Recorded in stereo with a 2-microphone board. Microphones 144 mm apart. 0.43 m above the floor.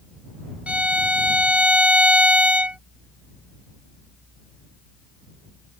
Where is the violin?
10° right (ahead or behind).